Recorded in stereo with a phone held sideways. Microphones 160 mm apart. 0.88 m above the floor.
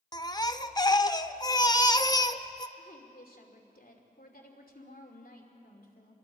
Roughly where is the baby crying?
Left.